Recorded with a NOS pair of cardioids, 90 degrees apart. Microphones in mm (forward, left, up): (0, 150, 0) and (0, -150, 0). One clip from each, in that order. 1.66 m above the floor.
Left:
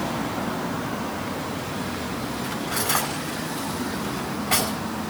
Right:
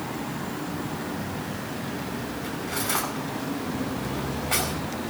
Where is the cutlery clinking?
30° left, 8 m.